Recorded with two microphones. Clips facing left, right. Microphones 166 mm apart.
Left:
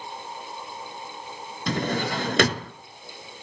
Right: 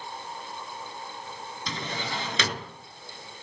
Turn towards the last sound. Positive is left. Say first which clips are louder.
# left 9 dB
turn(degrees=55)  # may be behind; listen again after turning